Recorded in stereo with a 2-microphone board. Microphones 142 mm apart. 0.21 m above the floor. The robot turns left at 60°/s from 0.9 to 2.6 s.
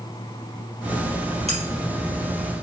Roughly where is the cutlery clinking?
Right.